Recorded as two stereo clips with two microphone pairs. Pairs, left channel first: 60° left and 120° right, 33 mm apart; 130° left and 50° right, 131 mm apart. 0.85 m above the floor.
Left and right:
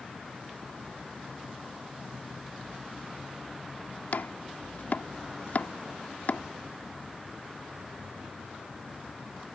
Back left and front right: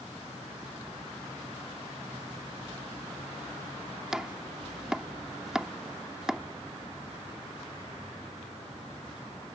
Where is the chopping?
30° left.